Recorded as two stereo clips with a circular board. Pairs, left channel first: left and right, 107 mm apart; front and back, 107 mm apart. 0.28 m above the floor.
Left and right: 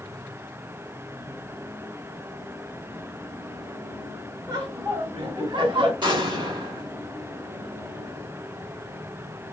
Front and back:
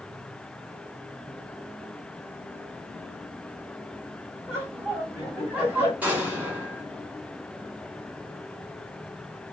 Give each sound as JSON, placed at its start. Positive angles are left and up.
{"t": 4.5, "sound": "laughter", "azimuth_deg": -125, "distance_m": 1.7}
{"t": 6.0, "sound": "an explosion", "azimuth_deg": -110, "distance_m": 2.0}